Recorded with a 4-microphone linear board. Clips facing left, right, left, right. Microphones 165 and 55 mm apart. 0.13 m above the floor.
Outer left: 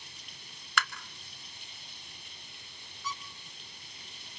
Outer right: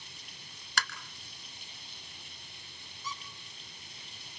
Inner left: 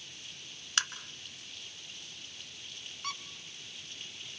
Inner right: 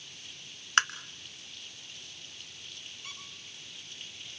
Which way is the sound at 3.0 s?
65° left (ahead or behind).